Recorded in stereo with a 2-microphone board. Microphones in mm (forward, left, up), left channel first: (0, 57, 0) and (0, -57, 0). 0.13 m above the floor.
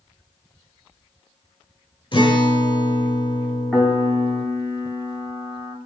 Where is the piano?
5° right (ahead or behind), 2.5 m.